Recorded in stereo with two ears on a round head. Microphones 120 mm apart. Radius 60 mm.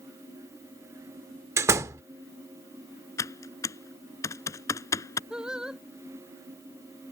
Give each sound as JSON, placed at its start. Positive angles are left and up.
{"t": 1.6, "sound": "a door slam", "side_deg": -20}
{"t": 3.2, "sound": "typing on a keyboard", "side_deg": 20}
{"t": 5.3, "sound": "singing", "side_deg": -5}